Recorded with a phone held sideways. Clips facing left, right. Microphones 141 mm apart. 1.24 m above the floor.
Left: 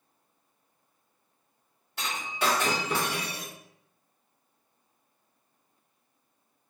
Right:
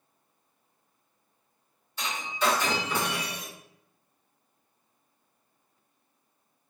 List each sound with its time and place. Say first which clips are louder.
2.0 s breaking glass: right 1 dB; 65° left (ahead or behind), 1.2 m